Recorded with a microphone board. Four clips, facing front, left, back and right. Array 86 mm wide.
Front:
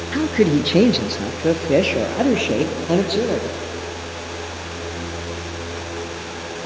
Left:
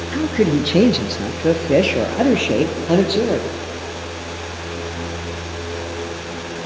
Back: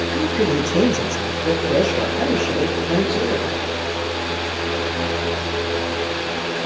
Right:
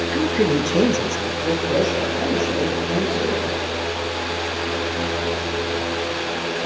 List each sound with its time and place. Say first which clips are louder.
0.1 s a man speaking: left 3 dB, front 4 dB; straight ahead, 1.6 m; by 3.5 s 60° left, 4 m